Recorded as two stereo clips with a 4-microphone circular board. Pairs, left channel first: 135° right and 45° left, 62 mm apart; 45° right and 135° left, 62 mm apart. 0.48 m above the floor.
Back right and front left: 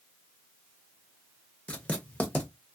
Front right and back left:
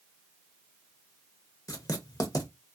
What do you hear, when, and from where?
1.7 s writing: 65° right, 0.7 m